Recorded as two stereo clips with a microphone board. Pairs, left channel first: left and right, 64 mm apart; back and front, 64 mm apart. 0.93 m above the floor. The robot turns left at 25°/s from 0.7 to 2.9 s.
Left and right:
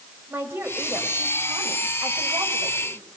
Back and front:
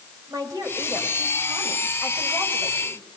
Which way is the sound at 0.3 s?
30° right.